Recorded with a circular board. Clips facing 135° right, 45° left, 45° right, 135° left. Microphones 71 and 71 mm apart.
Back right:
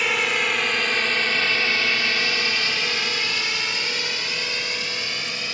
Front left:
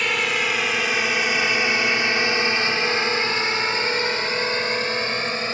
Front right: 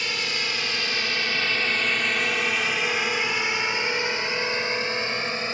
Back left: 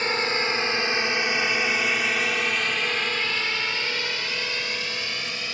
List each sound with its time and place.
0.0 s a drone: 140° left; by 5.5 s 5° left